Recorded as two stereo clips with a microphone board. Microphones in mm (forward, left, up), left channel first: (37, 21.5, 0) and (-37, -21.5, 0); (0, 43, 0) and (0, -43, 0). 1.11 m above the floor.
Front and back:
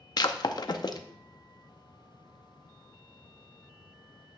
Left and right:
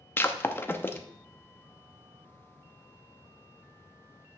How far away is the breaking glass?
About 0.6 m.